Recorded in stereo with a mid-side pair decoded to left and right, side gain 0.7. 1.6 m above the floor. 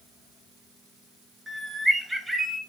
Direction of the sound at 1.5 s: 5° right.